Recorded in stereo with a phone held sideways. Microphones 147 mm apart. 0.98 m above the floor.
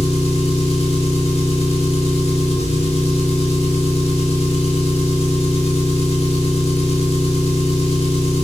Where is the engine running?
45° left (ahead or behind), 0.7 m.